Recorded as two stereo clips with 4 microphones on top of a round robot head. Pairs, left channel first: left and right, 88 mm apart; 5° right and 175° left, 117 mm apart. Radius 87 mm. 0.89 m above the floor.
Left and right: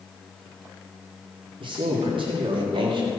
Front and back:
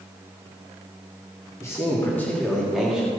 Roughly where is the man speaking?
Right.